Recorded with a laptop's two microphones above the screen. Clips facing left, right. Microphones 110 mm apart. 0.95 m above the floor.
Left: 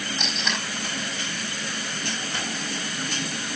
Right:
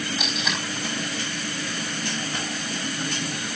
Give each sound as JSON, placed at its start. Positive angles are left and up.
{"t": 0.2, "sound": "tape being pulled", "side_deg": -5, "distance_m": 4.0}